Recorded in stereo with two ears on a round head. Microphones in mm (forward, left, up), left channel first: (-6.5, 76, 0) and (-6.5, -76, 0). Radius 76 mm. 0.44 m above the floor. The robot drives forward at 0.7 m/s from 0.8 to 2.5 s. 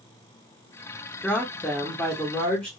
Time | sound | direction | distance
1.2 | a woman speaking | 5° left (ahead or behind) | 1.0 m